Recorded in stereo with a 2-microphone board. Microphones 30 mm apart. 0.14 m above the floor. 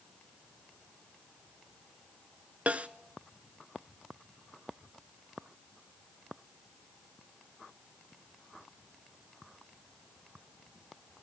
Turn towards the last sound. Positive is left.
turn(degrees=-55)  # may be behind; listen again after turning